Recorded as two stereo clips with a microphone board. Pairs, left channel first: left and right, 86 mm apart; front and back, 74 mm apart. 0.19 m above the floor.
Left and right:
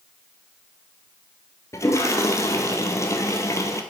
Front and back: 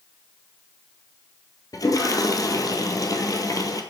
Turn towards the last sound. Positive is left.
turn(degrees=35)